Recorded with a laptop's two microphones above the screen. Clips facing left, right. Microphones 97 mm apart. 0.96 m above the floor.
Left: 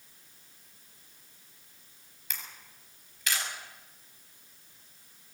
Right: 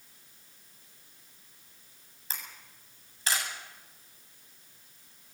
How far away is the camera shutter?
About 7.5 m.